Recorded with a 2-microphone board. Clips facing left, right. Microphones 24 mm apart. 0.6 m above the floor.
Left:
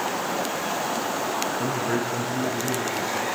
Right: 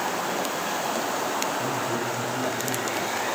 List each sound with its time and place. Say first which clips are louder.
1.6 s a man speaking: left 2 dB; 55° left (ahead or behind), 7.5 m